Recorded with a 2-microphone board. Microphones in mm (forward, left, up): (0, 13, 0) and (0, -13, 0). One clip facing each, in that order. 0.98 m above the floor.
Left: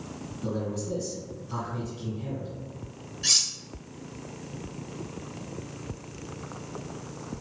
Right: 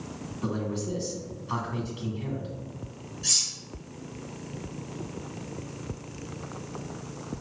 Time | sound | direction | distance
0.4 | a man speaking | 70° right (ahead or behind) | 2.0 m
3.2 | cutlery clinking | 35° left (ahead or behind) | 0.6 m